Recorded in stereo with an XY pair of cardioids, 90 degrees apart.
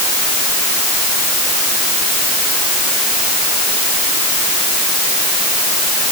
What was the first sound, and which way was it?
Only background noise.